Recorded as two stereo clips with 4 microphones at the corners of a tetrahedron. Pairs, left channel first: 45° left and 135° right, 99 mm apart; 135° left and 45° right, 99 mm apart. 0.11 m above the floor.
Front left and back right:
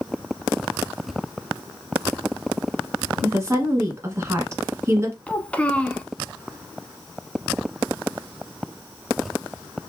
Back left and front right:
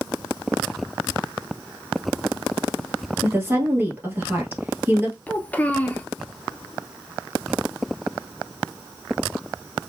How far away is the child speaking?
About 0.7 m.